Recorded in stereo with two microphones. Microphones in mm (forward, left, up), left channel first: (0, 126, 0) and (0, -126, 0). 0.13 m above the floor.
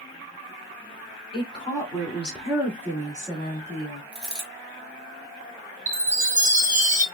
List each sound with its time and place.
1.3 s a woman speaking: 20° left (ahead or behind), 1.7 m; by 4.0 s 30° right (ahead or behind), 1.8 m
4.1 s a dropped coin: 15° right (ahead or behind), 1.0 m
5.9 s a chime: 30° right (ahead or behind), 0.5 m